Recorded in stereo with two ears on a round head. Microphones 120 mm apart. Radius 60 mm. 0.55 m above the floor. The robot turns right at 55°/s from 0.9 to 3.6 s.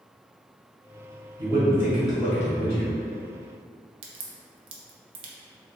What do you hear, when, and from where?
1.4 s a man speaking: 35° right, 1.5 m; by 2.9 s 50° left, 1.5 m
4.0 s a crack: 40° right (ahead or behind), 0.5 m